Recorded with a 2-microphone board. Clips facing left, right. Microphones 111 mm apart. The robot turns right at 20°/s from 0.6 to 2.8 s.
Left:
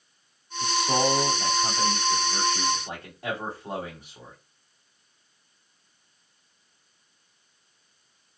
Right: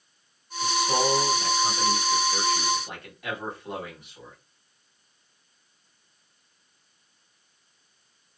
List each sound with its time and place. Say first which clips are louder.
0.6 s a man speaking: even; 60° left, 1.2 m; by 4.3 s 105° left, 1.2 m